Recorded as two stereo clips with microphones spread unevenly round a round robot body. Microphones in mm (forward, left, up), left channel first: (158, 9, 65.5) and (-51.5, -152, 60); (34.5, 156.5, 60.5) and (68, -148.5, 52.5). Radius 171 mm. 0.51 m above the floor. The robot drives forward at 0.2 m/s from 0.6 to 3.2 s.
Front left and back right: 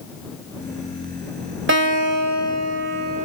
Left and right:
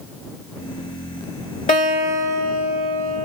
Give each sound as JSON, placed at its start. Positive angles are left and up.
{"t": 1.7, "sound": "a guitar", "azimuth_deg": 165, "distance_m": 1.3}